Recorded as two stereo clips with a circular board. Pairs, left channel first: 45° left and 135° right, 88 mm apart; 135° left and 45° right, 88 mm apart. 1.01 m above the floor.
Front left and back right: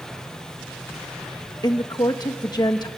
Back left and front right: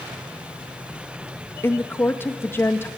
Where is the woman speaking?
75° left, 1.4 m.